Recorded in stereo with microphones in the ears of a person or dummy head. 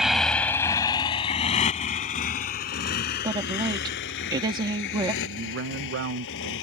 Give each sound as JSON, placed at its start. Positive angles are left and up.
{"t": 0.0, "sound": "a motorcycle", "side_deg": -10}
{"t": 3.2, "sound": "a woman speaking", "side_deg": -25}
{"t": 5.2, "sound": "a man speaking", "side_deg": -70}